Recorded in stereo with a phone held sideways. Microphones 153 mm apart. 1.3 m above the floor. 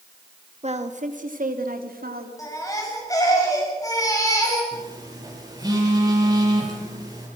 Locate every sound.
0.6 s a woman speaking: 45° right (ahead or behind), 2.5 m; by 2.3 s 75° right (ahead or behind), 4 m
2.4 s a baby crying: 20° left (ahead or behind), 7 m
4.7 s a phone buzzing: 25° right (ahead or behind), 8.5 m